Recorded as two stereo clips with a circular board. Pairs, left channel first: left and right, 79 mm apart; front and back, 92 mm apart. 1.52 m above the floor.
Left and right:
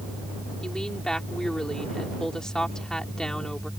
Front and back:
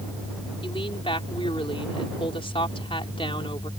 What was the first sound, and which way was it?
A woman speaking, 10° left.